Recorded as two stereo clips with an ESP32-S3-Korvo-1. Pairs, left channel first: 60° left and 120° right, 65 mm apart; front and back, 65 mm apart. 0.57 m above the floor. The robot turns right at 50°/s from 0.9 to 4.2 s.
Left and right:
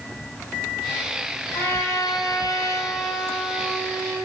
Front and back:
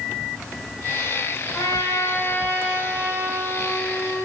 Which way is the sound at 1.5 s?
10° left.